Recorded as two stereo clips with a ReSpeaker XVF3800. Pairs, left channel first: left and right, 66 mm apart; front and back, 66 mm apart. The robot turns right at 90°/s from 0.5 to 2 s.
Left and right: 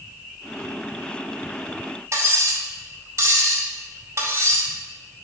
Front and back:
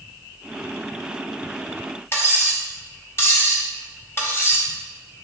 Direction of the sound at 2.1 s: 50° right.